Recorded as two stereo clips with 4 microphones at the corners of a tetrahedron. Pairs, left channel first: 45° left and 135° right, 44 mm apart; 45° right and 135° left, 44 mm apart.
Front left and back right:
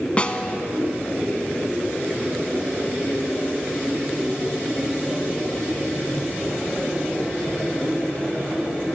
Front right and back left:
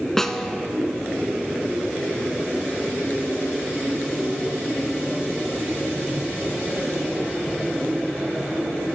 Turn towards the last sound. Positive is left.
turn(degrees=25)